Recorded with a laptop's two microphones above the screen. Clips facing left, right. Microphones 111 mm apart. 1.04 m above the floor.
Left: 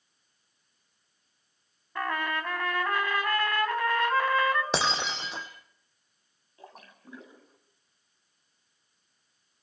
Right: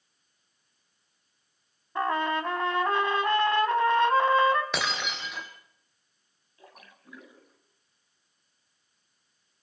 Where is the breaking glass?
30° left (ahead or behind), 2.5 m.